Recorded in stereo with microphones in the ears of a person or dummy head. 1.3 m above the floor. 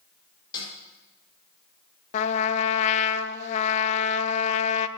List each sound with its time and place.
0.5 s a snare drum: 20° left (ahead or behind), 4.5 m
2.1 s a trumpet: 35° left (ahead or behind), 0.6 m